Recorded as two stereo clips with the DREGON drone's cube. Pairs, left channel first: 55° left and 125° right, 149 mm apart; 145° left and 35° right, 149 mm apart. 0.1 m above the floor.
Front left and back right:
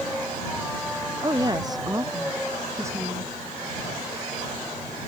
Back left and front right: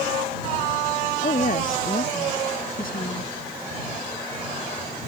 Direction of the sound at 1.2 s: 175° left.